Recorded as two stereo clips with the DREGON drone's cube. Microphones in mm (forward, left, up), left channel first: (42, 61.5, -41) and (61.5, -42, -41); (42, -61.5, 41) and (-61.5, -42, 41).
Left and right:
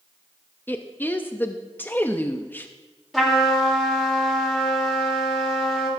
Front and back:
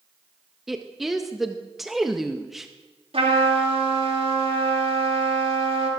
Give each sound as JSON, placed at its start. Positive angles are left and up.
{"t": 0.7, "sound": "a woman speaking", "azimuth_deg": 85, "distance_m": 0.6}
{"t": 3.1, "sound": "a trumpet", "azimuth_deg": -170, "distance_m": 2.5}